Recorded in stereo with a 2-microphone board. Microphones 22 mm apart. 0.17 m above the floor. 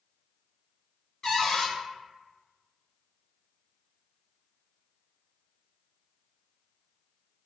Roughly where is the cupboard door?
Left.